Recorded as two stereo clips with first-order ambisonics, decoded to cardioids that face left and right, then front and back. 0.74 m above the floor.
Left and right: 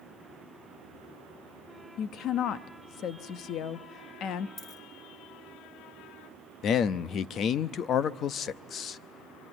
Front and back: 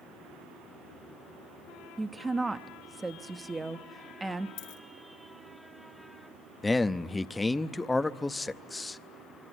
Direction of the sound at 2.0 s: 105° left.